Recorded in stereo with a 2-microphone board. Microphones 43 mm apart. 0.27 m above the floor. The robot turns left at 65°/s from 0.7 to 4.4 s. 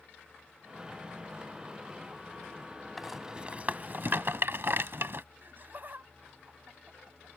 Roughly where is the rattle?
Centre.